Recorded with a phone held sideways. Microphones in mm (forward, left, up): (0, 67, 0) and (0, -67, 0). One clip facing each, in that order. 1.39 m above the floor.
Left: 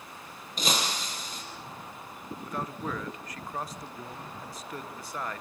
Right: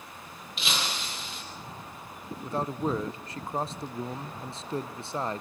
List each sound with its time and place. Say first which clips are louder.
0.6 s breaking glass: left 3 dB; 40° left (ahead or behind), 5 m
2.4 s a man speaking: right 6 dB; 30° right (ahead or behind), 1.2 m